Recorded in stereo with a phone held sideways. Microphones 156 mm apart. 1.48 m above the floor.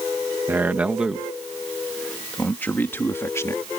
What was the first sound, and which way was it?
A man speaking, 15° right (ahead or behind).